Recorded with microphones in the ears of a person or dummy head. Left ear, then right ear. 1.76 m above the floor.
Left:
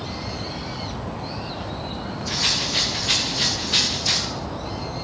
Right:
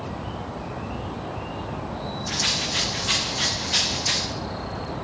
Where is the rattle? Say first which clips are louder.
Left 2 dB; 5° right (ahead or behind), 1.6 m.